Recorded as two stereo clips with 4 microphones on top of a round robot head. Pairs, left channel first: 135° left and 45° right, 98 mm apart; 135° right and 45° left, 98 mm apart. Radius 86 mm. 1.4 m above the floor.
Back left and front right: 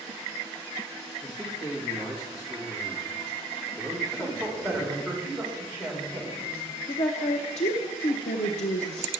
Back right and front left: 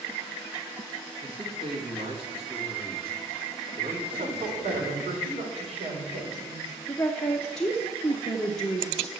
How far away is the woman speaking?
About 0.8 m.